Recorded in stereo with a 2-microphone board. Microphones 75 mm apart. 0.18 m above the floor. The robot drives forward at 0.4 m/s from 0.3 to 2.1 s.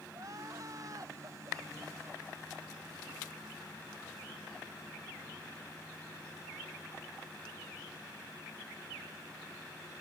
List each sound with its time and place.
0.1 s crying: 45° right (ahead or behind); by 2.3 s 50° right (ahead or behind)